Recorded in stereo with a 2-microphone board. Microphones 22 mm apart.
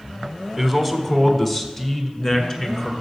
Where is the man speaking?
Centre (ahead or behind), 1.0 m; by 2.9 s 30° left (ahead or behind), 1.9 m.